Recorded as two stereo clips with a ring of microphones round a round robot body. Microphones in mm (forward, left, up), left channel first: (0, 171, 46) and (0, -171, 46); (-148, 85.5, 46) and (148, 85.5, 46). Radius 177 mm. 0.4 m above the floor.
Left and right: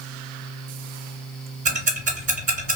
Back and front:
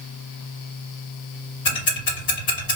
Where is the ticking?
160° right, 1.2 m.